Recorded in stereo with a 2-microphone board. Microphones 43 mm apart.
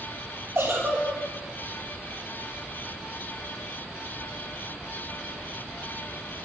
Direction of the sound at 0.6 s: 55° right (ahead or behind).